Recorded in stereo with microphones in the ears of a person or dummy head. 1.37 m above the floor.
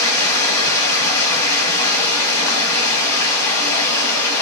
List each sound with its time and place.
0.0 s running water: 25° left (ahead or behind), 1.2 m